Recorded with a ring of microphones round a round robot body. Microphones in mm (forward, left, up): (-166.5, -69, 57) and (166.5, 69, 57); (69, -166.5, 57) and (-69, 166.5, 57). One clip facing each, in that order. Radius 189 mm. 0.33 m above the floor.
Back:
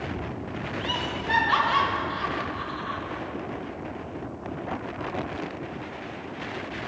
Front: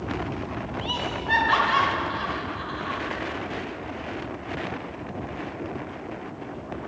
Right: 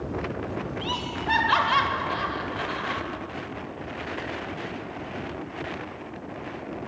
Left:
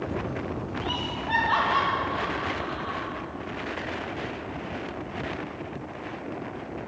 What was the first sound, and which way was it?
Laughter, 65° right.